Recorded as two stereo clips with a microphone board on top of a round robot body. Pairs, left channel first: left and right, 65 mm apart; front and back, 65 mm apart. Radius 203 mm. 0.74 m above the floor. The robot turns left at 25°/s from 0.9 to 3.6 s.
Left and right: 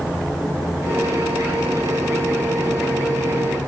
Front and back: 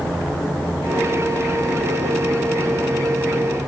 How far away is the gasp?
No gasp in this recording.